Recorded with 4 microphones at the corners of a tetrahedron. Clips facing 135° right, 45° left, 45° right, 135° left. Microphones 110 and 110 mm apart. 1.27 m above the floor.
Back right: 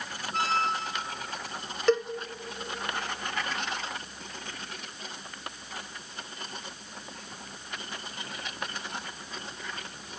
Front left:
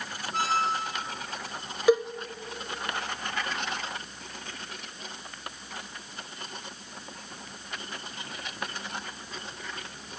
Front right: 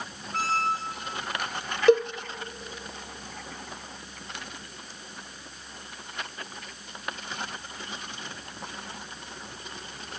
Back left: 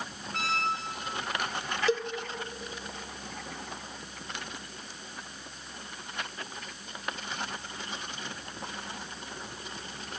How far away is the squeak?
About 0.9 m.